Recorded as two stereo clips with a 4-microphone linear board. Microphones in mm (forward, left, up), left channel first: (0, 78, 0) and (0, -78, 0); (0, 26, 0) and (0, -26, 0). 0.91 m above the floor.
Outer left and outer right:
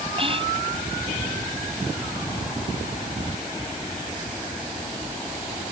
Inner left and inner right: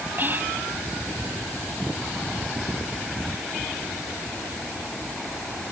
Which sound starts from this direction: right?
Whispering, at 0.2 s.